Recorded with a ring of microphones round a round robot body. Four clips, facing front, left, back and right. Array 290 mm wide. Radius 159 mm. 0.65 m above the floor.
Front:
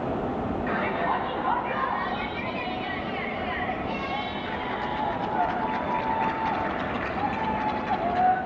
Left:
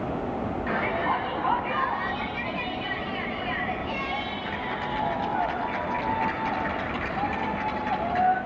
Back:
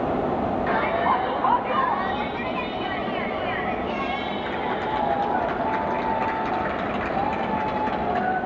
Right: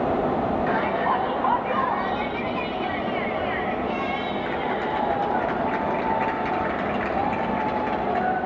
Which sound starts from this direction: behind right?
A shout, at 0.7 s.